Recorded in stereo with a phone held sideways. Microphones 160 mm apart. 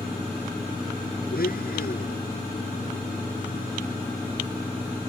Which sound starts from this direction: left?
A blender, at 1.3 s.